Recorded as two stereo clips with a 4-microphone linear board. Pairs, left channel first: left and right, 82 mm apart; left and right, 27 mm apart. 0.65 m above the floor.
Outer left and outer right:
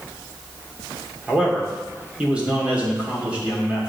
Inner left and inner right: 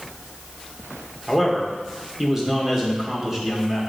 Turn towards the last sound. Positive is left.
turn(degrees=-15)  # may be behind; listen again after turning